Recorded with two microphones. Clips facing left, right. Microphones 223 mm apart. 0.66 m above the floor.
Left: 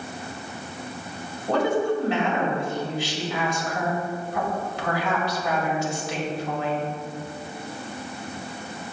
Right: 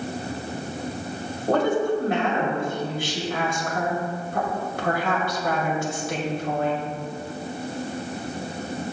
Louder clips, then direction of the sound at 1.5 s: Right 1 dB; 50° right (ahead or behind).